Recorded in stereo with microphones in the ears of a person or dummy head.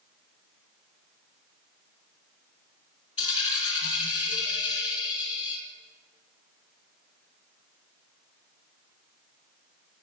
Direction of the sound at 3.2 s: 35° left (ahead or behind).